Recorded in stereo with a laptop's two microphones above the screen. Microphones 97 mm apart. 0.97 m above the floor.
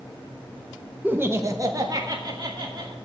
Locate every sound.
1.0 s laughter: 15° right (ahead or behind), 0.7 m; by 3.0 s 45° right (ahead or behind), 2.5 m